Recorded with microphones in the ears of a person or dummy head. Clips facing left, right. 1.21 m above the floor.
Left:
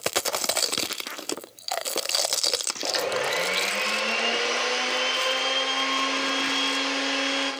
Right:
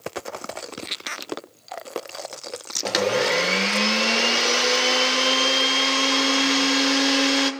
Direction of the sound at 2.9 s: 55° right (ahead or behind).